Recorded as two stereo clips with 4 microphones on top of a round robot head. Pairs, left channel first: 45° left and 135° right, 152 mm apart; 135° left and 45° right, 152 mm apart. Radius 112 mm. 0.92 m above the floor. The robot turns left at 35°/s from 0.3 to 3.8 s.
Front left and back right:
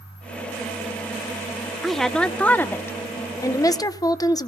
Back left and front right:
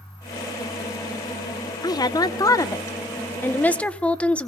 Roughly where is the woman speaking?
Behind left.